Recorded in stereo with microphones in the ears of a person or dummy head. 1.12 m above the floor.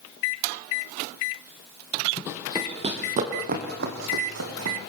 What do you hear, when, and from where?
2.3 s running footsteps: 5° right (ahead or behind), 2 m; by 4.8 s 70° right (ahead or behind), 4 m